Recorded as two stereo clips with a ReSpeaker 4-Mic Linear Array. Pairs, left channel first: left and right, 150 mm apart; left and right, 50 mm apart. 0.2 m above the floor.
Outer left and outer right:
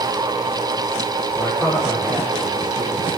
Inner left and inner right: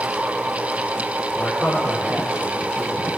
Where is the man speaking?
Centre (ahead or behind), 7 m.